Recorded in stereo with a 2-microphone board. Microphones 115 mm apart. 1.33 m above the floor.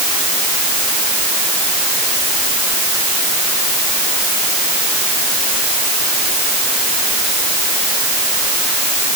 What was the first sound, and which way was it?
Only background noise.